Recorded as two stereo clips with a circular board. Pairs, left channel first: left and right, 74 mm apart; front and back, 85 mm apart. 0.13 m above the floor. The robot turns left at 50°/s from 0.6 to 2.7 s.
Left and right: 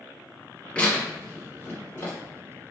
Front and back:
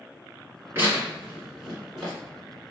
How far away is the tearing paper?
About 1.6 m.